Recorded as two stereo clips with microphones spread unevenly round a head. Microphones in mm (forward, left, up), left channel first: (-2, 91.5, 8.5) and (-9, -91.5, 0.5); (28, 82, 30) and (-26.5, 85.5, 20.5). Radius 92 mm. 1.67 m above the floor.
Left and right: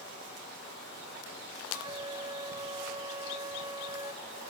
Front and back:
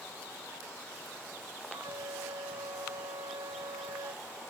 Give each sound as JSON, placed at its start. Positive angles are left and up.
{"t": 1.7, "sound": "a flute", "azimuth_deg": -160}